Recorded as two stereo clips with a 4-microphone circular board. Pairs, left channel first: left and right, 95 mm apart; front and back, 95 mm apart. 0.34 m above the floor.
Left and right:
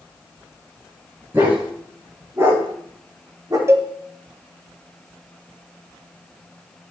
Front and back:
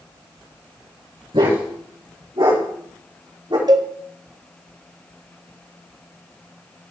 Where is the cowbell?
145° right, 1.0 m.